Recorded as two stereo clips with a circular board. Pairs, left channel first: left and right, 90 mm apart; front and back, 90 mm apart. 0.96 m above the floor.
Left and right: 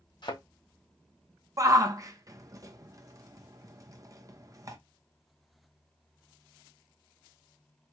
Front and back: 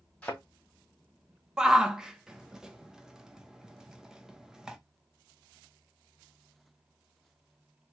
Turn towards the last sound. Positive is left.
turn(degrees=-105)